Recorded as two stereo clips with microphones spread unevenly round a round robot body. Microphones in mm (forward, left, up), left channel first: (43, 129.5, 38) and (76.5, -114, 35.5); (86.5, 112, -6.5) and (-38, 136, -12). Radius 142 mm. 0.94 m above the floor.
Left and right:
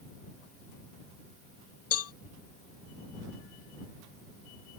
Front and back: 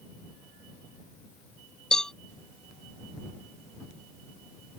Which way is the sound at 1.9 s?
75° left.